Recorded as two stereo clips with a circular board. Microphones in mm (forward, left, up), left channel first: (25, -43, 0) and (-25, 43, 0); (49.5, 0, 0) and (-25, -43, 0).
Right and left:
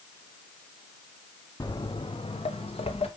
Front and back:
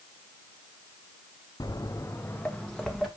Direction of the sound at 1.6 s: 10° right.